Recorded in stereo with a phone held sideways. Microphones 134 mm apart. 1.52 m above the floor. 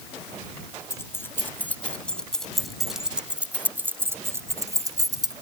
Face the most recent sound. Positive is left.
turn(degrees=-30)  # may be behind; listen again after turning